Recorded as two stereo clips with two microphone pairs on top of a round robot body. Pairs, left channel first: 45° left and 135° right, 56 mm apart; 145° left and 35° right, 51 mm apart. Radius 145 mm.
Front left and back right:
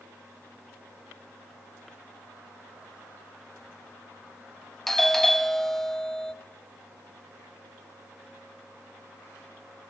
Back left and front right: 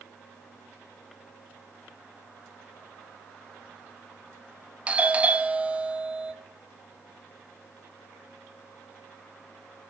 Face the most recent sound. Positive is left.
turn(degrees=-40)